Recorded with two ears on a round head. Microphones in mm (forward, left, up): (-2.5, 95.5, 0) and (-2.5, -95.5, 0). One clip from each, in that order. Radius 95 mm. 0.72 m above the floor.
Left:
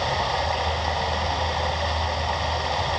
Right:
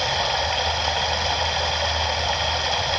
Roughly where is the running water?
Right.